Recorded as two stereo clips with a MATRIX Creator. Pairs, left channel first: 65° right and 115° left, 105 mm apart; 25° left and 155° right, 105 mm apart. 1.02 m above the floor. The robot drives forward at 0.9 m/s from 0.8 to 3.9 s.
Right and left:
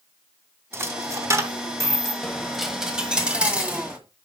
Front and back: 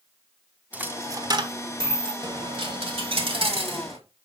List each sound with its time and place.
0.7 s a dropped coin: 145° left, 0.6 m; by 2.1 s 175° left, 1.5 m
2.2 s a dropped coin: 150° right, 1.0 m; by 4.0 s 170° right, 2 m